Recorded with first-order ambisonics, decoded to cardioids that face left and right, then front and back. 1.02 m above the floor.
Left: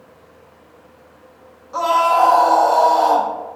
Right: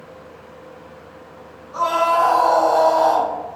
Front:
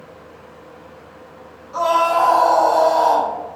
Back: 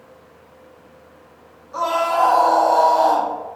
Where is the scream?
70° left, 1.2 m.